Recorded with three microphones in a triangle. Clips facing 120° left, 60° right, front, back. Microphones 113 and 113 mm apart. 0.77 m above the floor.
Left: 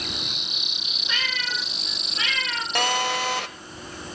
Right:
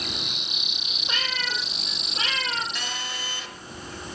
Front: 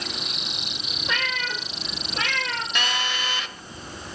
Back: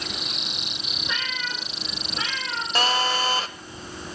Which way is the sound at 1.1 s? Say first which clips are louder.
Even, front 4 dB; 10° right.